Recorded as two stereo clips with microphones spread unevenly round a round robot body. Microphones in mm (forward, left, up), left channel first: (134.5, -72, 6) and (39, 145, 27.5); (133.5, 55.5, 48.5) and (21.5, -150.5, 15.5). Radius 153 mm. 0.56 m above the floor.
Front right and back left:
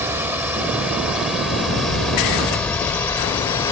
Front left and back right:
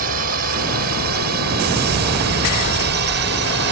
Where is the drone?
165° right; by 3.7 s 140° right.